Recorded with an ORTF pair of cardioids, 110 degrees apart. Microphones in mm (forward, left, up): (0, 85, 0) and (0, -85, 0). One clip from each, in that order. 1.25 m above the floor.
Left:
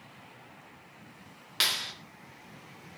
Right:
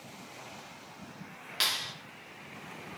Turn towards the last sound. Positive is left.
turn(degrees=25)